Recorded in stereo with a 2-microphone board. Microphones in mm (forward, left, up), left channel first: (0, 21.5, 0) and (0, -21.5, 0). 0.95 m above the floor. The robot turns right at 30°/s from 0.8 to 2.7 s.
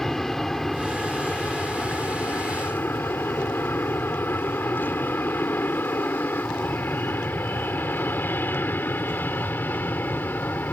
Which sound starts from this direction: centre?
An aircraft, at 0.0 s.